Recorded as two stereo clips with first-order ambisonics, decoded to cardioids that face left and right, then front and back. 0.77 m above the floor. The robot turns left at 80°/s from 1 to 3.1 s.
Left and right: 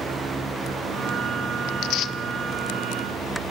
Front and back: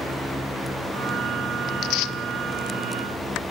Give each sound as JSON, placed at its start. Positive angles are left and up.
{"t": 1.7, "sound": "tearing paper", "azimuth_deg": 65, "distance_m": 0.5}